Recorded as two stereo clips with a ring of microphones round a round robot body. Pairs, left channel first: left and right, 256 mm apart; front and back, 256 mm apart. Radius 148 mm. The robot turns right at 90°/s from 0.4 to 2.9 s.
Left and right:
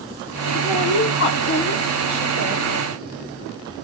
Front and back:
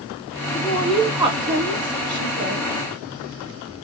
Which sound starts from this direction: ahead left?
A woman speaking, at 0.5 s.